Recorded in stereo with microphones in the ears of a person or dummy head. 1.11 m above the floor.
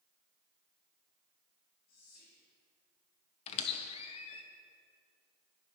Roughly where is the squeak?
Left.